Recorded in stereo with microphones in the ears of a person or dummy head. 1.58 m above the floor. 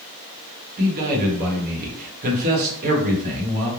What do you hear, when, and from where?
0.8 s a man speaking: 45° right (ahead or behind), 0.9 m